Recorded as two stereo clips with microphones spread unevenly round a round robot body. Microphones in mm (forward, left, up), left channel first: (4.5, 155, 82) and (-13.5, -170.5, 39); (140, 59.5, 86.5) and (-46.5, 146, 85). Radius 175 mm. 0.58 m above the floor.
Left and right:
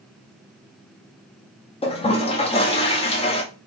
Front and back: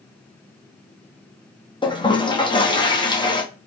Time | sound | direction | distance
1.8 | a toilet flushing | 20° left | 0.9 m